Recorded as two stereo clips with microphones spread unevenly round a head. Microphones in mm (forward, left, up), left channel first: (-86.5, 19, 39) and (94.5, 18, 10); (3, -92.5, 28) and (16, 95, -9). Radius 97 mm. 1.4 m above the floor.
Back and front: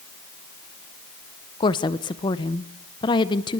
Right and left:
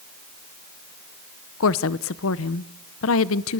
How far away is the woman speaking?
About 0.8 m.